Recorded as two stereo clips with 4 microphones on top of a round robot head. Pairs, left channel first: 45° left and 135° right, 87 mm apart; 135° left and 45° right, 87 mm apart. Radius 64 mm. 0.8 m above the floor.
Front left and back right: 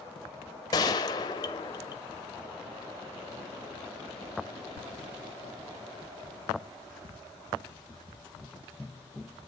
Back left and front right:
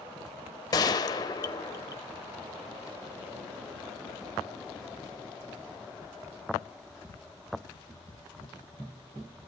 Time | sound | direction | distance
0.7 | a gunshot | 90° left | 0.9 m